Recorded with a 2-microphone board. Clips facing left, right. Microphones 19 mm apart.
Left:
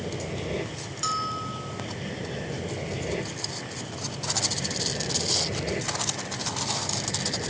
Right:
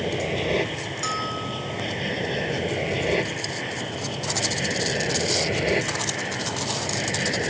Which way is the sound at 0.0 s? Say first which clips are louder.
Right 7 dB; 40° right (ahead or behind).